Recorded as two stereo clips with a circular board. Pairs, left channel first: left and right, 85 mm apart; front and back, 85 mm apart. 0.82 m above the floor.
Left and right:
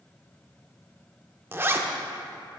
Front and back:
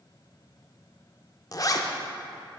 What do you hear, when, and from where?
1.5 s a zipper: 30° right, 0.5 m